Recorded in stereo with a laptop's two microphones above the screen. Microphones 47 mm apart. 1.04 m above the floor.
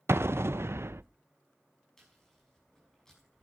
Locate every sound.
0.1 s an explosion: 65° right (ahead or behind), 0.5 m
2.0 s chewing: 10° left (ahead or behind), 6.5 m